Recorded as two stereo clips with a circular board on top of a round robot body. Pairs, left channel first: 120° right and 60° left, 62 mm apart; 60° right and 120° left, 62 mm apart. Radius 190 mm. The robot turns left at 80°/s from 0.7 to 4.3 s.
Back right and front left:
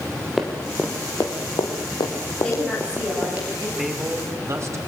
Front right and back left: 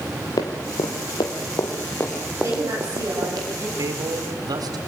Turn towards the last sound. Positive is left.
turn(degrees=105)